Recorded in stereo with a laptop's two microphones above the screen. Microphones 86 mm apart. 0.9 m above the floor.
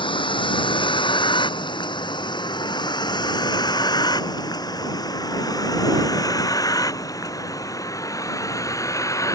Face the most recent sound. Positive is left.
turn(degrees=35)  # may be behind; listen again after turning